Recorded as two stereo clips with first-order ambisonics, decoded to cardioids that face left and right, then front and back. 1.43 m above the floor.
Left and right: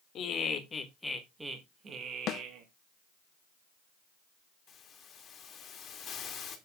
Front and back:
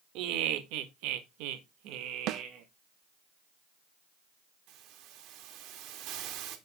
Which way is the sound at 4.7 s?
150° left.